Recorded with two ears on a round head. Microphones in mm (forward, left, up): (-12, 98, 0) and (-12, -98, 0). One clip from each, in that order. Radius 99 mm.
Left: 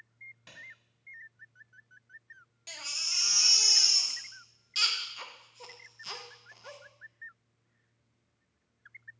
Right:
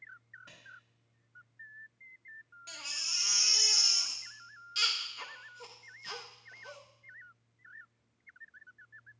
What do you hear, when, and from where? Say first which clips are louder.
0.5 s a clap: left 3 dB; 80° left, 3.5 m
2.7 s a baby crying: left 2 dB; 15° left (ahead or behind), 0.7 m